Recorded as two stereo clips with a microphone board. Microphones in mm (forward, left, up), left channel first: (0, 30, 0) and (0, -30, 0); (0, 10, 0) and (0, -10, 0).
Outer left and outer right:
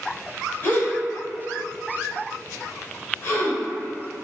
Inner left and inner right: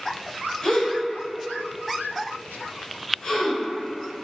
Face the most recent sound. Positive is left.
turn(degrees=35)  # may be behind; listen again after turning